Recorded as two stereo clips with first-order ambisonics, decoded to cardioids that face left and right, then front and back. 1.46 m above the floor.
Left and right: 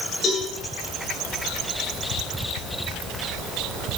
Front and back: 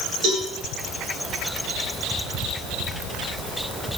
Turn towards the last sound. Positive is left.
turn(degrees=145)